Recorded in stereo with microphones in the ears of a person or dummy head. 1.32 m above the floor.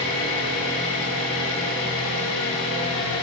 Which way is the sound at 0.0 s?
70° left (ahead or behind).